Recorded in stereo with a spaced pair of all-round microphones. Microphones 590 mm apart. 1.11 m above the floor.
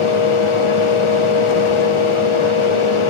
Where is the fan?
55° left (ahead or behind), 0.9 m.